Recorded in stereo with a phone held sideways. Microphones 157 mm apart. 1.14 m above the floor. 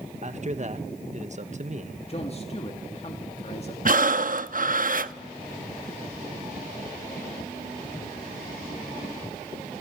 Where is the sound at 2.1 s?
40° left (ahead or behind), 2 m.